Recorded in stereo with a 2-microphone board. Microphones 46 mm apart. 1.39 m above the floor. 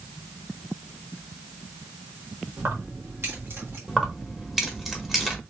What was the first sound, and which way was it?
Keys jangling, 55° right (ahead or behind).